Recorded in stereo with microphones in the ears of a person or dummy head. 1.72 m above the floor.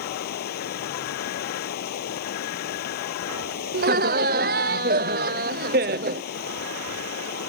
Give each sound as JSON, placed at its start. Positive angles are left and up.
{"t": 0.0, "sound": "running water", "side_deg": 50}
{"t": 3.7, "sound": "laughter", "side_deg": -40}